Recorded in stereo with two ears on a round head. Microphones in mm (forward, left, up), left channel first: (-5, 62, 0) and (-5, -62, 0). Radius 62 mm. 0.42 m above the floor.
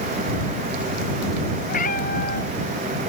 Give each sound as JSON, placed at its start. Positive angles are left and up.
{"t": 1.7, "sound": "a cat meowing", "side_deg": 60}